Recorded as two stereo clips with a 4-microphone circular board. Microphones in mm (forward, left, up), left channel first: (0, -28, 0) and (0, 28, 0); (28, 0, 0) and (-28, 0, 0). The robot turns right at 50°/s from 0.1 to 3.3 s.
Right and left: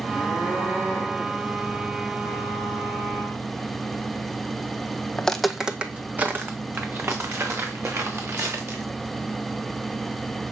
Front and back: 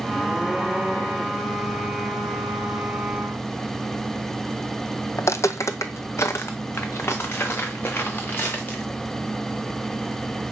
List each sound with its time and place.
5.2 s footsteps: 20° right, 0.5 m; by 8.8 s 55° left, 2.5 m